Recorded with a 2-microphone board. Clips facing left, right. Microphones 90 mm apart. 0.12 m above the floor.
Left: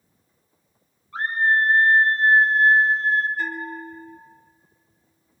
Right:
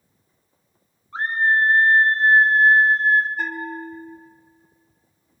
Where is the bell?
55° right (ahead or behind), 2 m.